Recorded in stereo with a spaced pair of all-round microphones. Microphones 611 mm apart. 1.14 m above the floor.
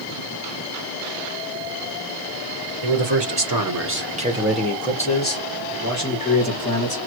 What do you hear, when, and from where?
2.8 s a man speaking: 50° right (ahead or behind), 1.1 m; by 7.0 s 35° left (ahead or behind), 2 m